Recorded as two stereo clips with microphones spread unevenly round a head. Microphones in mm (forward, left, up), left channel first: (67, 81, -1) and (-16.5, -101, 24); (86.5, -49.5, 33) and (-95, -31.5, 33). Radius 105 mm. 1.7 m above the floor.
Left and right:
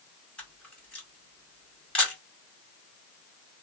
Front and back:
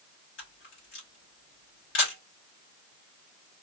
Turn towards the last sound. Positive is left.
turn(degrees=-20)